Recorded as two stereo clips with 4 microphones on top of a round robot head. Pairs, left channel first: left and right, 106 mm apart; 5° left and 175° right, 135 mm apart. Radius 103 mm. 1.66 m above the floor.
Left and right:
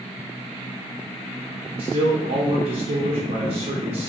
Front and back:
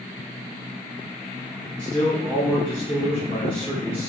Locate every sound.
1.8 s a man speaking: 80° right, 0.8 m